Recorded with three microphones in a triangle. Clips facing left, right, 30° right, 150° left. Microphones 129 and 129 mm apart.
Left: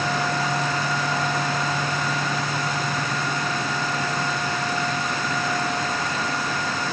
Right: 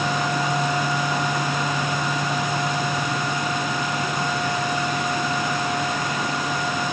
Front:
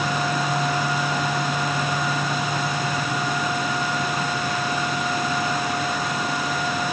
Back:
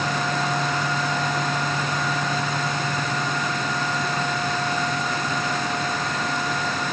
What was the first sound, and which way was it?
Only background noise.